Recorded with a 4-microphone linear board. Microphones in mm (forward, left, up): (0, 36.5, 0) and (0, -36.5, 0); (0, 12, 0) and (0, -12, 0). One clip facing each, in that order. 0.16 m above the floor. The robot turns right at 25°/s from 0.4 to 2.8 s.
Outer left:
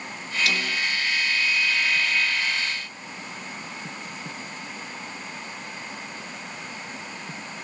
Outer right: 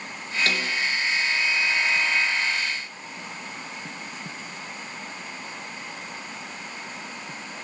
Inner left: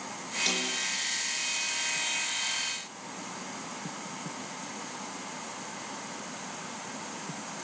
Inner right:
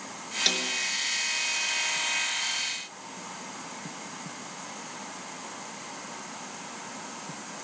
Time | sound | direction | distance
0.5 | a snare drum | 40° right (ahead or behind) | 2.5 m